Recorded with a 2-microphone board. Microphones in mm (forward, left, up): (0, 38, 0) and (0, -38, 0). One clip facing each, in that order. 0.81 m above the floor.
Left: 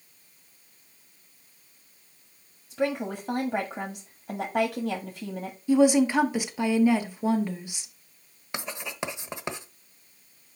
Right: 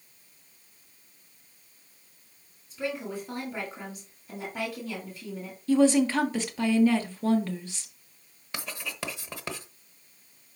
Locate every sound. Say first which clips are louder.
2.7 s a woman speaking: left 5 dB; 60° left (ahead or behind), 1.5 m
5.7 s a woman speaking: left 1 dB; 15° left (ahead or behind), 1.4 m
8.5 s writing: left 3 dB; 20° left (ahead or behind), 1.0 m